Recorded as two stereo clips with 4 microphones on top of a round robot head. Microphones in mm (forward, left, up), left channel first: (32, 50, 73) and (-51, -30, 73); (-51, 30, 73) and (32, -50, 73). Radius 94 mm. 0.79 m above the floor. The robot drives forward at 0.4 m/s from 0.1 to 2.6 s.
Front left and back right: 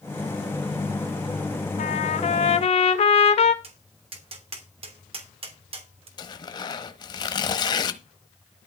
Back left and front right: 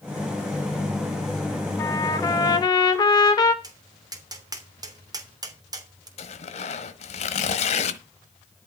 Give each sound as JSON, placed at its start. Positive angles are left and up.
{"t": 1.8, "sound": "a trumpet", "azimuth_deg": 70, "distance_m": 1.8}
{"t": 3.6, "sound": "tapping", "azimuth_deg": -100, "distance_m": 3.0}
{"t": 6.2, "sound": "tearing paper", "azimuth_deg": 100, "distance_m": 1.3}